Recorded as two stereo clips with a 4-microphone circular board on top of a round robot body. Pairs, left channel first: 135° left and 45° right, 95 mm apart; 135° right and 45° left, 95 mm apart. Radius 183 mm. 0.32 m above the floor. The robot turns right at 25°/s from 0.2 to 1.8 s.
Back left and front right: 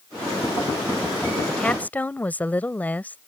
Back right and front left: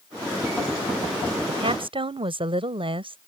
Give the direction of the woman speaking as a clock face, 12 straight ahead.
10 o'clock.